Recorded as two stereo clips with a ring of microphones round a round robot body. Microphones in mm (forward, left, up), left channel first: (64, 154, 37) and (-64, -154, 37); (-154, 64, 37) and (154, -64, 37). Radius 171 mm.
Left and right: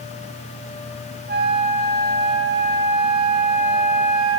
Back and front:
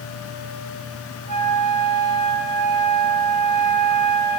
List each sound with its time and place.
1.3 s a flute: 50° right, 1.4 m